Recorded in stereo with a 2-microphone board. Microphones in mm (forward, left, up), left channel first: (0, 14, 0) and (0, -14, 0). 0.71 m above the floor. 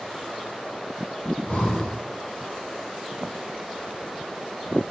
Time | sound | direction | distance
1.2 | breathing | 70° left (ahead or behind) | 5 m